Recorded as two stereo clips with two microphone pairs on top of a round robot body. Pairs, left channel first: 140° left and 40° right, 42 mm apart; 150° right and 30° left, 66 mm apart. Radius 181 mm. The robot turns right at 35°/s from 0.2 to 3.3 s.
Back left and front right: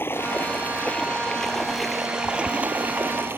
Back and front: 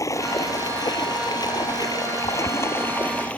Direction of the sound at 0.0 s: 175° left.